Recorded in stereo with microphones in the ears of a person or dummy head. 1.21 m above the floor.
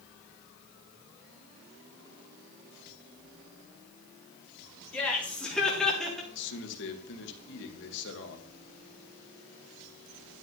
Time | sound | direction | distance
4.9 | laughter | 5° left (ahead or behind) | 4 m
6.3 | a man speaking | 60° left (ahead or behind) | 1.9 m